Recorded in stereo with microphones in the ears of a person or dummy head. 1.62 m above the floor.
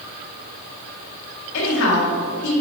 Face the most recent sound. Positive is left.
turn(degrees=75)  # may be behind; listen again after turning